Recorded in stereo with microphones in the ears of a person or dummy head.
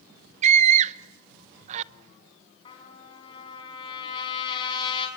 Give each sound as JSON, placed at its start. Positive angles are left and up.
{"t": 0.4, "sound": "a scream", "side_deg": -40, "distance_m": 0.8}
{"t": 2.6, "sound": "a trumpet", "side_deg": 30, "distance_m": 6.0}